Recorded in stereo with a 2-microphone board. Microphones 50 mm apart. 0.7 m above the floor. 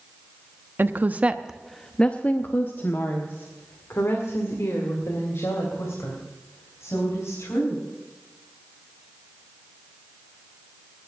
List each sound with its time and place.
0.8 s a woman speaking: 45° right (ahead or behind), 0.9 m; by 7.8 s 75° left (ahead or behind), 5 m